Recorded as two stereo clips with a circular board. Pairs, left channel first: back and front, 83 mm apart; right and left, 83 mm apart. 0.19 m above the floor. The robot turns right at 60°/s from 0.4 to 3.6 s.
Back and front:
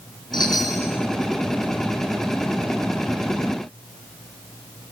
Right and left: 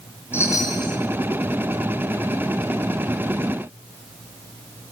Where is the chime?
150° right, 2.5 m; by 1.0 s 115° right, 2.5 m.